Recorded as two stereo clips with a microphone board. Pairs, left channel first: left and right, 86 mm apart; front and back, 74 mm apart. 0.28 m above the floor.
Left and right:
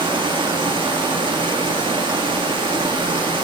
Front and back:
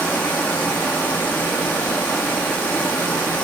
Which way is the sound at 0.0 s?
70° right.